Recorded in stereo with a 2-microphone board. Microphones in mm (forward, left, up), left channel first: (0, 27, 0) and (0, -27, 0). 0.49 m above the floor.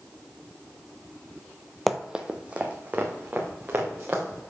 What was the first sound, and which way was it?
Running footsteps, centre (ahead or behind).